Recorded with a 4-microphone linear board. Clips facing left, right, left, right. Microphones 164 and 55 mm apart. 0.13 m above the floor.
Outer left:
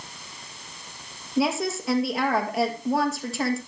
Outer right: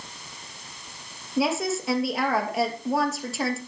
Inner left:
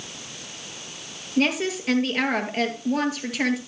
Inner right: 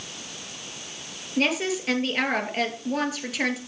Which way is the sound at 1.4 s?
Centre (ahead or behind).